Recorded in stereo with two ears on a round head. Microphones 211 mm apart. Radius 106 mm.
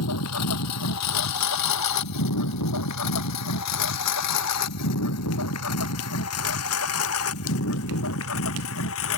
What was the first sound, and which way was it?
A lawn mower, 80° left.